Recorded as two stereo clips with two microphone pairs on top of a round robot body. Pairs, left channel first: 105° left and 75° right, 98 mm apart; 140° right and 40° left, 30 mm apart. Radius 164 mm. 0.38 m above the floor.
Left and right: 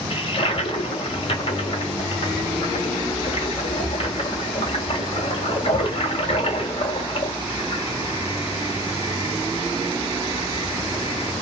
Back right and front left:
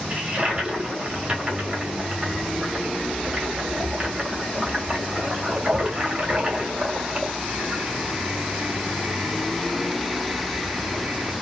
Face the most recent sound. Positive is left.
turn(degrees=100)